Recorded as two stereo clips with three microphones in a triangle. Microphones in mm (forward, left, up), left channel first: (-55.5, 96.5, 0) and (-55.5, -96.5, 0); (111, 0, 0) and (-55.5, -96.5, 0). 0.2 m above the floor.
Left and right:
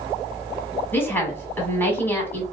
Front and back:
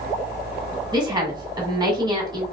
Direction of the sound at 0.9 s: 160° left.